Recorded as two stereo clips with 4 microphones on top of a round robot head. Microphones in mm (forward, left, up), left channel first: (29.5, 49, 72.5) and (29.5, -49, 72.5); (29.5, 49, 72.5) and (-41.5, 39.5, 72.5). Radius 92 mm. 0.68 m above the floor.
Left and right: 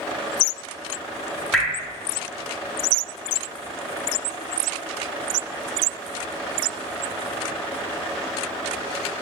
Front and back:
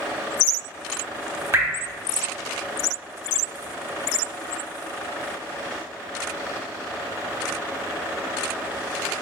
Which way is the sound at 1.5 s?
175° left.